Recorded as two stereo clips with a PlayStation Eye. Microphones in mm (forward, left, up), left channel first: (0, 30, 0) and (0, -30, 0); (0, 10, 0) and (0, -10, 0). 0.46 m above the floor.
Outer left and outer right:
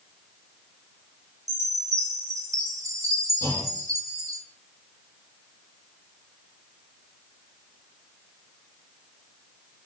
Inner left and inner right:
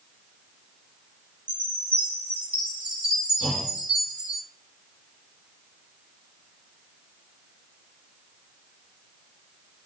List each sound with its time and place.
1.5 s a chime: 60° right (ahead or behind), 4.5 m
3.4 s a clunk: 65° right (ahead or behind), 4 m